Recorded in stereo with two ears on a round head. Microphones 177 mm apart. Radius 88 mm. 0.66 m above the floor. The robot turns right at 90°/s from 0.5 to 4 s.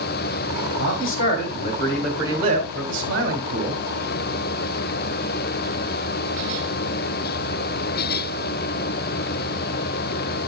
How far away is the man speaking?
About 2.5 m.